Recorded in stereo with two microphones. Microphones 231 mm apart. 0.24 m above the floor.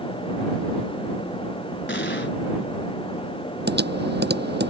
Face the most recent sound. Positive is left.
turn(degrees=-45)  # may be behind; listen again after turning